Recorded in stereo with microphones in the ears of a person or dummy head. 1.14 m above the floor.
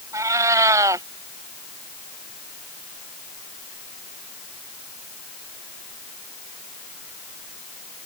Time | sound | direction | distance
0.1 | a cat meowing | 15° right (ahead or behind) | ?